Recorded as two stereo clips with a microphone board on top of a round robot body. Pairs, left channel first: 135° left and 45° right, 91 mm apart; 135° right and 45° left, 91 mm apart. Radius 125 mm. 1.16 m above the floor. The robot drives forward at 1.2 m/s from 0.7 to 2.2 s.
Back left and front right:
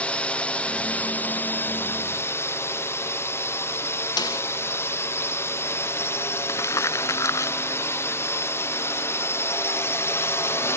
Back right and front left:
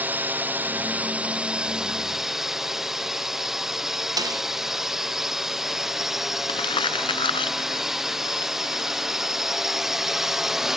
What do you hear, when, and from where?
0.0 s a drone: 80° left; by 10.8 s 125° left
4.2 s a snare drum: 90° left
6.5 s crumpling: 165° right